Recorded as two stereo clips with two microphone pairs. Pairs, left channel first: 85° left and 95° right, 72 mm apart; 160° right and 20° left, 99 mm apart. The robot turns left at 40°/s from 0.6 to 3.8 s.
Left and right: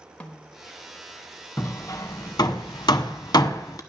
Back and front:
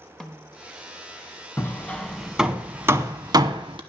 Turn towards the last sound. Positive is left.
turn(degrees=50)